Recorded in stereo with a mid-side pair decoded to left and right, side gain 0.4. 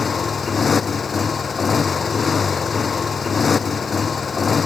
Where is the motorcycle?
45° left.